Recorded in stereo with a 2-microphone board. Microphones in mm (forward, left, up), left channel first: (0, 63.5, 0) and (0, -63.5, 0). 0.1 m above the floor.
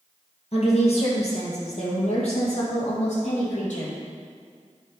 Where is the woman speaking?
55° left (ahead or behind), 2.5 m; by 3.9 s 60° left (ahead or behind), 4 m.